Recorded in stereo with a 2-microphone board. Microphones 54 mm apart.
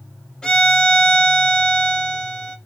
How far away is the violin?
About 0.5 m.